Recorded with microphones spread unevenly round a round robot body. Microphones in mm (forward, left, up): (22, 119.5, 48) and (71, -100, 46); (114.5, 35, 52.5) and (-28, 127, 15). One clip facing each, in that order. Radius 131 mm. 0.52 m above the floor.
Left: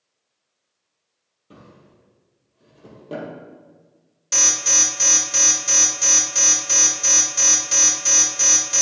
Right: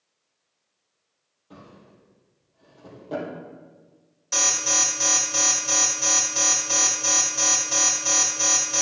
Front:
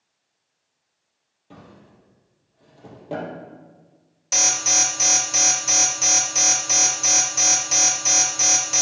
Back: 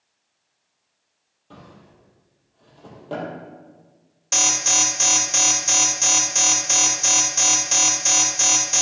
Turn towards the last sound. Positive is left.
turn(degrees=60)